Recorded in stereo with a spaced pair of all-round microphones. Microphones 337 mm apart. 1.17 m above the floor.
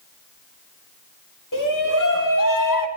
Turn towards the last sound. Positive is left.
turn(degrees=70)  # may be behind; listen again after turning